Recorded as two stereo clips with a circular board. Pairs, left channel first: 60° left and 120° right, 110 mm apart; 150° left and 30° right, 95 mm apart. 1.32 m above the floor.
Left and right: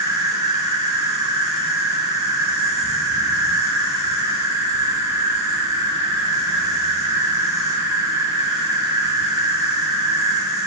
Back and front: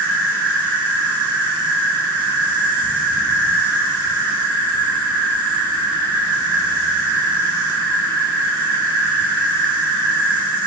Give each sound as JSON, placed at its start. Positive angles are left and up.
{"t": 0.0, "sound": "an insect", "azimuth_deg": -65, "distance_m": 0.9}